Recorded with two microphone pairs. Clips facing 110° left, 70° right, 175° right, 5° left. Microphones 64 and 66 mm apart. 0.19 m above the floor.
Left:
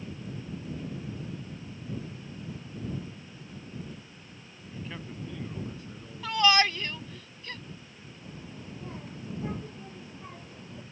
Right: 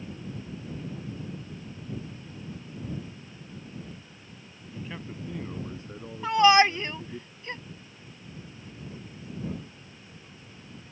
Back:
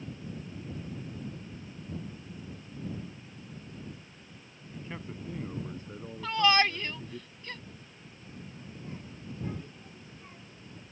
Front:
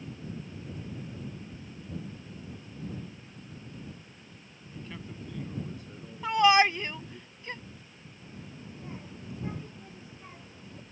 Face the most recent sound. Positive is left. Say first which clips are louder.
# left 2 dB, front 1 dB
turn(degrees=75)